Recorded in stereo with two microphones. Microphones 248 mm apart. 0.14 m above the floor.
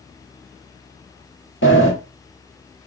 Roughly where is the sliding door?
Left.